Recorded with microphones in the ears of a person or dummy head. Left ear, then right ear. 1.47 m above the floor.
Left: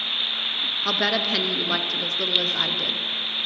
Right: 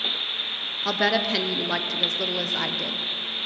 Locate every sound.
0.8 s a woman speaking: 5° right (ahead or behind), 0.6 m